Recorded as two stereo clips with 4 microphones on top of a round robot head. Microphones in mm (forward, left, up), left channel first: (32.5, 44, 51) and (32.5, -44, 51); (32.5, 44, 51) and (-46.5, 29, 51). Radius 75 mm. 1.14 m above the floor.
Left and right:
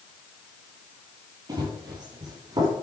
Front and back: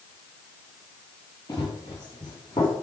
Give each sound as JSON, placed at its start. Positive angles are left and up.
{"t": 1.5, "sound": "running footsteps", "azimuth_deg": -50, "distance_m": 1.9}